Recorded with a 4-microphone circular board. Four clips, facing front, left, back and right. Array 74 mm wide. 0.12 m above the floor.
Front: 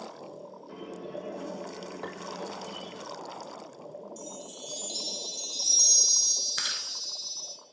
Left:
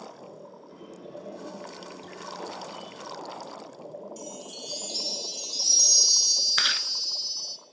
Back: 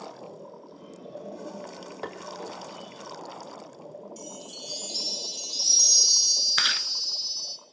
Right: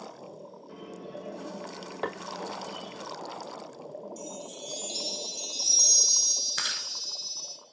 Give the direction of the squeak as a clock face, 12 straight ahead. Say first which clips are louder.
Right 2 dB, front 8 dB; 12 o'clock.